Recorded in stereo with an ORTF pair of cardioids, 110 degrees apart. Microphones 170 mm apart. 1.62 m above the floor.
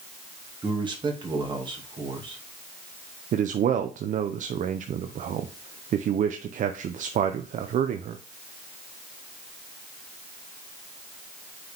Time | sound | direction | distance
0.6 | a man speaking | 30° right | 2.5 m
3.3 | a man speaking | 50° right | 0.8 m